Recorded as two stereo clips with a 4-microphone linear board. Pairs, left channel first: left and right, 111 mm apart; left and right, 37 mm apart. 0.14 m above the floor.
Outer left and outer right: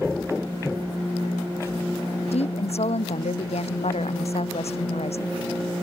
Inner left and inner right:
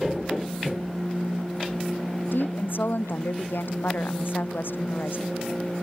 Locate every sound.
2.3 s a woman speaking: 80° left